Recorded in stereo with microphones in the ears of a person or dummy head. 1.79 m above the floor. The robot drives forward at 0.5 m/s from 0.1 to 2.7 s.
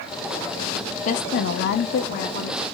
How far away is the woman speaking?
About 0.6 m.